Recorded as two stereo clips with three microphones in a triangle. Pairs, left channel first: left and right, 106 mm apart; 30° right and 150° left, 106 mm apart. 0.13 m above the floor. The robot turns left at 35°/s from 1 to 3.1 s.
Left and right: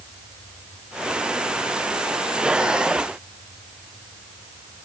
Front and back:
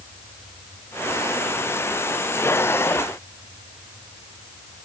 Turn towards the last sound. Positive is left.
No sound to turn to.